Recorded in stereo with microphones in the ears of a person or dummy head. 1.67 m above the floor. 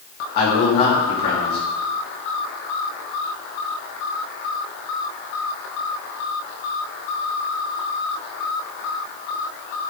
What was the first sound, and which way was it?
A man speaking, 45° left (ahead or behind).